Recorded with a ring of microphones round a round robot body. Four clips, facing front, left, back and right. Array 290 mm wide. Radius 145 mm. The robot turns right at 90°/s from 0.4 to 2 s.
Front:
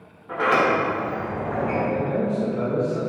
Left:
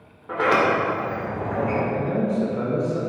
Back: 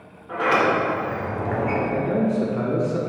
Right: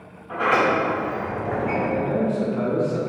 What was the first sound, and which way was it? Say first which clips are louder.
A sliding door: even, even; 85° left.